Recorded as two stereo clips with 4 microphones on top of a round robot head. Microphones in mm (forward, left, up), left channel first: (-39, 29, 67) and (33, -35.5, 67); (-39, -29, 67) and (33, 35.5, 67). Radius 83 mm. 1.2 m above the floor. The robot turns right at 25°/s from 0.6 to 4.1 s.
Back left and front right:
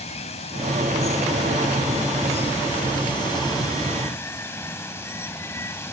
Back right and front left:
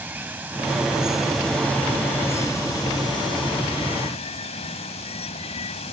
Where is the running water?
115° left; by 5.9 s 155° right.